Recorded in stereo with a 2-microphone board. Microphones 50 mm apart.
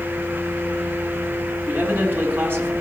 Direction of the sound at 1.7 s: 45° right (ahead or behind).